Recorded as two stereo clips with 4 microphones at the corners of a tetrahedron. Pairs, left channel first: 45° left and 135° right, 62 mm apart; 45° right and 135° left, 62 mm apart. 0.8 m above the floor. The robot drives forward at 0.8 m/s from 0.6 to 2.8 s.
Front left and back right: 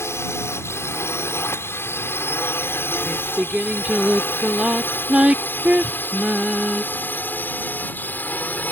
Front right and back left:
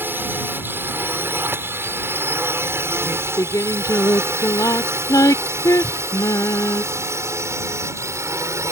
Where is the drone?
85° left; by 8.7 s 105° left.